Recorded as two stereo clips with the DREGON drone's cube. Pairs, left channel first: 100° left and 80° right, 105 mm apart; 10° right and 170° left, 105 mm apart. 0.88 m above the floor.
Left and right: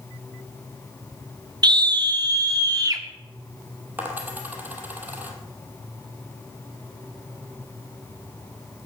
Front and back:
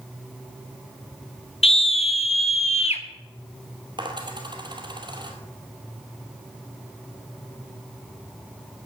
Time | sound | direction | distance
1.6 | a scream | 35° right | 0.7 m
4.0 | a dropped coin | 150° right | 2.0 m